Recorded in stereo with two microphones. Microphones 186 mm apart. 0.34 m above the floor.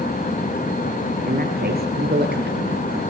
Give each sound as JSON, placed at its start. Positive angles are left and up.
{"t": 1.3, "sound": "a man speaking", "side_deg": -50, "distance_m": 7.0}